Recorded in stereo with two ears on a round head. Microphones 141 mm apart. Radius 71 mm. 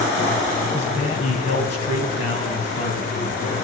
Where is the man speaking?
45° left (ahead or behind), 3 m.